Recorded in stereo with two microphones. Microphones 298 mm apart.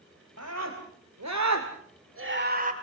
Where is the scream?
55° right (ahead or behind), 3 m; by 2.7 s 25° right (ahead or behind), 2 m.